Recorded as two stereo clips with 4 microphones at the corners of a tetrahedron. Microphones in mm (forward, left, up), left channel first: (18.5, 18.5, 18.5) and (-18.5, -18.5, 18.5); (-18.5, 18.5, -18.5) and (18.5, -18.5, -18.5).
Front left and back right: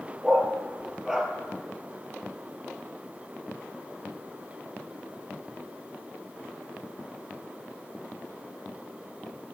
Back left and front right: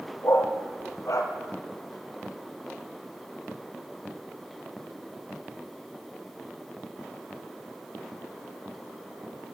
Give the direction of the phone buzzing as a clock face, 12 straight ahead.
I don't hear a phone buzzing.